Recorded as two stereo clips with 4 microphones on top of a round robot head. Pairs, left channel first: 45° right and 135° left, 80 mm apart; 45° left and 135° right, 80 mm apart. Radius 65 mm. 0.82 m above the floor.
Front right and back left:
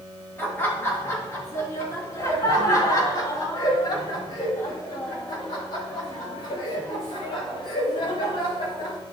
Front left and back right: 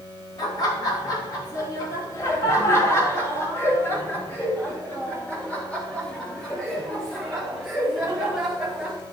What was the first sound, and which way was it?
Laughter, 20° left.